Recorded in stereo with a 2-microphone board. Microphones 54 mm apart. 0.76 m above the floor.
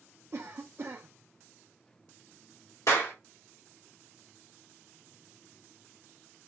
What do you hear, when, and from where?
0.3 s a cough: 55° right (ahead or behind), 0.7 m
2.9 s a clap: 70° left (ahead or behind), 1.6 m